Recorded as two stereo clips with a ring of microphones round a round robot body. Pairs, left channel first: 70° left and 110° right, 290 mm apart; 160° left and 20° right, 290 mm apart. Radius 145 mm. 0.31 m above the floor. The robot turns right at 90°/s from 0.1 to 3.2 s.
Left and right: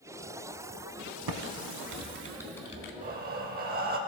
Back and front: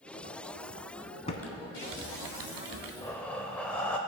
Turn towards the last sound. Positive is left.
turn(degrees=-120)